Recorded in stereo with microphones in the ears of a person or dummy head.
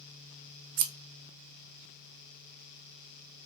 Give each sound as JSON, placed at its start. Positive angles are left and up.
{"t": 0.8, "sound": "scissors", "side_deg": -60, "distance_m": 0.5}